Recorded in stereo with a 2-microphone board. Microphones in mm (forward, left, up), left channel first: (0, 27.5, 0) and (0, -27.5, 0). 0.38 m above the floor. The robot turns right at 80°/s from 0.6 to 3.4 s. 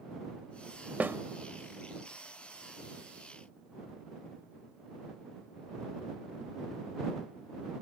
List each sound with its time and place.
1.0 s a snare drum: 30° right (ahead or behind); by 1.2 s 40° right (ahead or behind)